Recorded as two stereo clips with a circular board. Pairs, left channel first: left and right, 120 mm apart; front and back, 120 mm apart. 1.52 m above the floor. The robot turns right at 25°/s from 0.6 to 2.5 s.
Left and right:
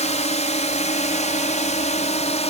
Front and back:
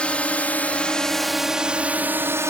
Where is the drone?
80° left; by 2.5 s 115° left.